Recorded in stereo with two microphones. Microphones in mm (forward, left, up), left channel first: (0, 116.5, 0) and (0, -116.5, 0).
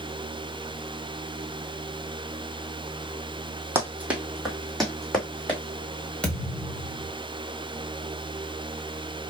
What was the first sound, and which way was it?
Running footsteps, 10° right (ahead or behind).